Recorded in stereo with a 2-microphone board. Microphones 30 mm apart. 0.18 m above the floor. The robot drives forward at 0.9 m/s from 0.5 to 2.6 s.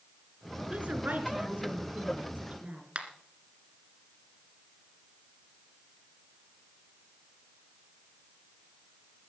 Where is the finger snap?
40° right (ahead or behind), 1.8 m.